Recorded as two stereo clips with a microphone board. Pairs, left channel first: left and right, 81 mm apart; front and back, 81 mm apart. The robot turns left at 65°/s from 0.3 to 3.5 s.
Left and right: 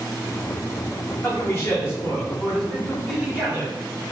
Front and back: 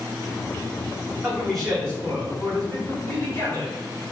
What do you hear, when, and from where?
1.2 s a man speaking: 105° left, 1.3 m; by 3.8 s 40° right, 1.3 m